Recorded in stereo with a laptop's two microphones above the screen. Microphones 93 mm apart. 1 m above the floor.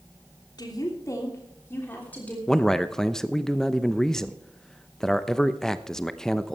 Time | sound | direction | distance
0.6 | a woman speaking | 45° left (ahead or behind) | 3 m
2.5 | a man speaking | 5° left (ahead or behind) | 0.8 m